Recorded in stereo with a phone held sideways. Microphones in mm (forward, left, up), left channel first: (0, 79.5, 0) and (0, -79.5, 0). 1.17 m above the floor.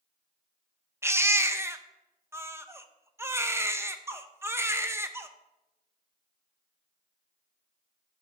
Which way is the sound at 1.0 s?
15° right (ahead or behind).